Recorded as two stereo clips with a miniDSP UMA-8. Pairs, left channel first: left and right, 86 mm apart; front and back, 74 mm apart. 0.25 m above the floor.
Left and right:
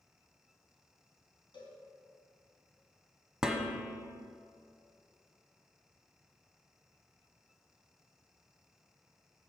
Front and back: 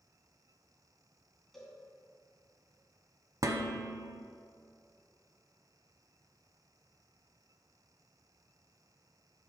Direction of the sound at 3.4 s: 170° right.